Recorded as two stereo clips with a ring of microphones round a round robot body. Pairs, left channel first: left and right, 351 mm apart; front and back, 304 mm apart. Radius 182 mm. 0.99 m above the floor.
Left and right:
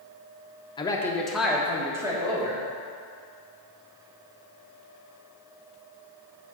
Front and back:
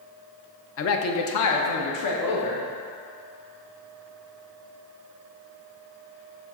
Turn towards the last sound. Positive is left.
turn(degrees=-10)